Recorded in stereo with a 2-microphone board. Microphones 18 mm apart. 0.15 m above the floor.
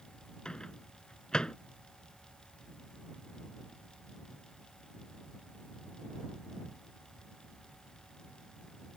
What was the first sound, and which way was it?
A microwave, 40° left (ahead or behind).